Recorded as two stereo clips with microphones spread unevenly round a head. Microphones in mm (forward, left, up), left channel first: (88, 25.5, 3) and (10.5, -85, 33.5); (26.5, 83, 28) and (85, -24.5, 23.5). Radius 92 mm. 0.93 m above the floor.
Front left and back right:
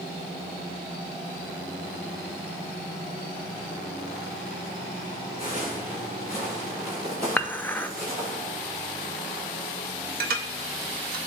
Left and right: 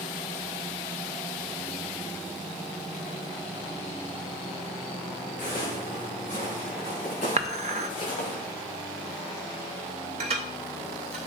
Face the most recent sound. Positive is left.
turn(degrees=-115)